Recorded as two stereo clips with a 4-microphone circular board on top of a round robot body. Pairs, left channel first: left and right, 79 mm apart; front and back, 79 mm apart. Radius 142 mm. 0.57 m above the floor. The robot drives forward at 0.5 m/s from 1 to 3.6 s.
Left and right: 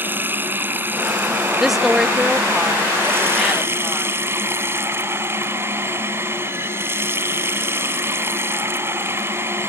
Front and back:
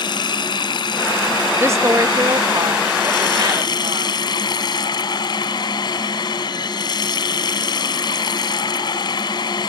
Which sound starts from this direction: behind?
A woman speaking, at 1.6 s.